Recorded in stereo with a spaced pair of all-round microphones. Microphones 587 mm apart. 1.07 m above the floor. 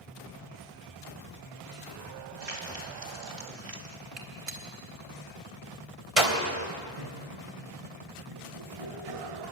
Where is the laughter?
85° right, 7 m.